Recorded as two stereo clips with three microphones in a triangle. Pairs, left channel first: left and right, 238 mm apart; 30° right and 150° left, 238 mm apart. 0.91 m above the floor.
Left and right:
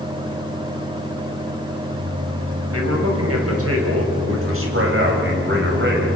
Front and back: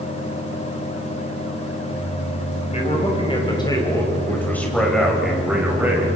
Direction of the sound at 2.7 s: 90° right.